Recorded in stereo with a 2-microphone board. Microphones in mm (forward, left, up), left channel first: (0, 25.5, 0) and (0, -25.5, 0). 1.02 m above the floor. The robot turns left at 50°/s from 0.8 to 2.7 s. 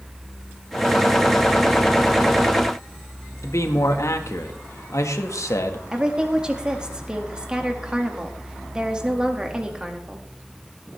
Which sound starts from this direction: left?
A man speaking, at 3.4 s.